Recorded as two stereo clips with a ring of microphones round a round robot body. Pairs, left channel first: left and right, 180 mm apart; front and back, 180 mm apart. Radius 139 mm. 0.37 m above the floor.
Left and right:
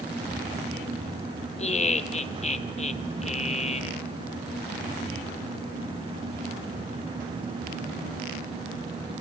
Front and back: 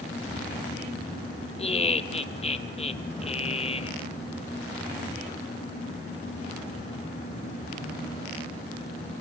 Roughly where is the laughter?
Ahead left.